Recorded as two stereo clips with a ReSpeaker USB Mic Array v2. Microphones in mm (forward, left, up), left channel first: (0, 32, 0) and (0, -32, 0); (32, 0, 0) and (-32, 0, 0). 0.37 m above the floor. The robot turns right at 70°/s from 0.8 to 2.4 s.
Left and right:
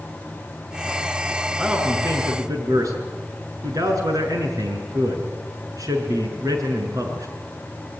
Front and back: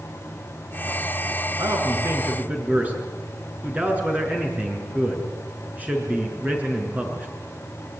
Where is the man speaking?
170° right, 6 m; by 7.3 s 115° right, 6 m.